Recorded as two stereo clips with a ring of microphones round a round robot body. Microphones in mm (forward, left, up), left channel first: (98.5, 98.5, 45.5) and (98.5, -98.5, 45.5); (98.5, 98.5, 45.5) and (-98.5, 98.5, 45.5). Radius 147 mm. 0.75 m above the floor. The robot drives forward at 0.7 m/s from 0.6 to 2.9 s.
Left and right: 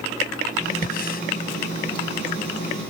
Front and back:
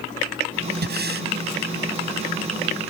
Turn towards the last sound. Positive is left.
turn(degrees=155)